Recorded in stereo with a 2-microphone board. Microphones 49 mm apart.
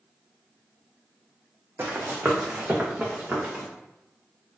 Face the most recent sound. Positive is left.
turn(degrees=-25)  # may be behind; listen again after turning